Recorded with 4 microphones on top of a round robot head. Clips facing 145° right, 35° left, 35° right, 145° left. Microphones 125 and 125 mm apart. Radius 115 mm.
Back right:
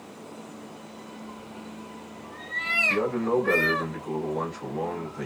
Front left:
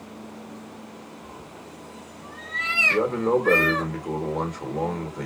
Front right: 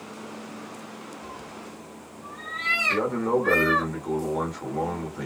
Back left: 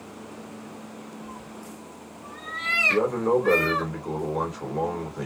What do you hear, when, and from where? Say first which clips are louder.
1.2 s a cat meowing: back right 1 dB, even; 30° left, 1.6 m; by 3.9 s 75° left, 2 m
2.9 s a man speaking: front left 3 dB, back left 2 dB; 60° left, 2 m